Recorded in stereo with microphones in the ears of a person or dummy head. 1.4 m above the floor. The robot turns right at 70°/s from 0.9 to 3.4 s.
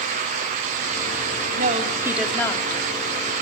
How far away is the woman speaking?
About 3 m.